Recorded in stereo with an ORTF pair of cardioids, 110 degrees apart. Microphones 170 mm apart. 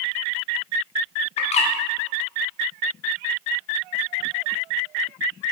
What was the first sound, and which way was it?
A bird, 40° left.